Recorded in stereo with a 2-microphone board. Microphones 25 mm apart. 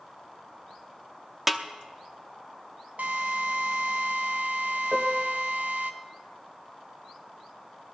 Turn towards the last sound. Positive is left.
turn(degrees=-15)  # may be behind; listen again after turning